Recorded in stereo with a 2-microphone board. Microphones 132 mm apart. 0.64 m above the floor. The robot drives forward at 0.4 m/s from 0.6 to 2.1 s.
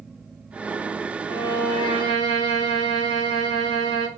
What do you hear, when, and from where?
1.3 s a violin: 40° left (ahead or behind), 1.2 m; by 4.1 s 35° left (ahead or behind), 1.3 m